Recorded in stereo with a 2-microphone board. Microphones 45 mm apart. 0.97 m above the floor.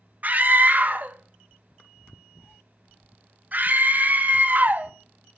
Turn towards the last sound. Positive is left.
turn(degrees=-40)  # may be behind; listen again after turning